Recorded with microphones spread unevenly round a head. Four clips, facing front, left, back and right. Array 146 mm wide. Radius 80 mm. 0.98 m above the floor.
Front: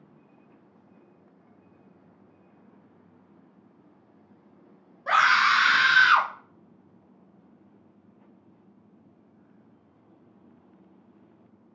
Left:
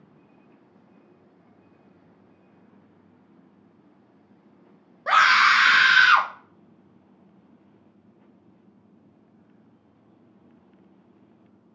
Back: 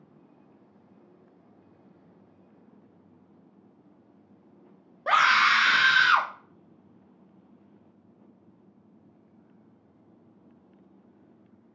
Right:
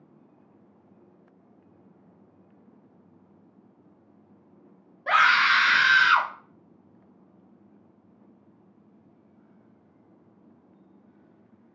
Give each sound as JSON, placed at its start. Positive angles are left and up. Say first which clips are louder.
{"t": 5.1, "sound": "a scream", "louder": "left 3 dB, front 1 dB", "azimuth_deg": 145, "distance_m": 0.6}